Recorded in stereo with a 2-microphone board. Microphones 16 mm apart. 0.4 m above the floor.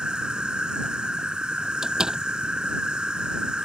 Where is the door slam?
45° right (ahead or behind).